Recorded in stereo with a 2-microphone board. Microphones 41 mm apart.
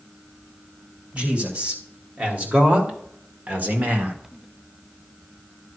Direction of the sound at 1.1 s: 35° right (ahead or behind).